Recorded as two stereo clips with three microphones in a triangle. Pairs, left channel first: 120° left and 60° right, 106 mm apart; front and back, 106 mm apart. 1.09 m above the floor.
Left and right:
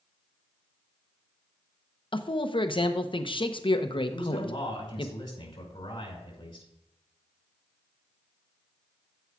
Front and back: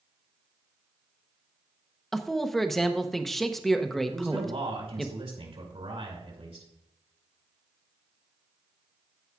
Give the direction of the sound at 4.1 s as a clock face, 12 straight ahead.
7 o'clock.